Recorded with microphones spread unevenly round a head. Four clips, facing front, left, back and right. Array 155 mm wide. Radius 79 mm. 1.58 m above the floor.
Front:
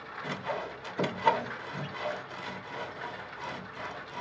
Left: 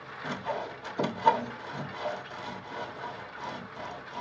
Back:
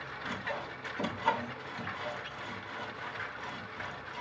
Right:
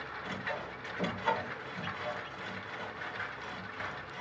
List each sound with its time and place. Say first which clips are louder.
0.2 s sawing: left 7 dB, front 4 dB; 50° left, 0.8 m